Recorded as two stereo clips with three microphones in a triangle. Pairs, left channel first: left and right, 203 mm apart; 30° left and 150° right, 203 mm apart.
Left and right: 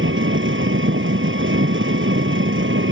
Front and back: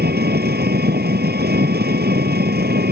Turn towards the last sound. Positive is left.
turn(degrees=-110)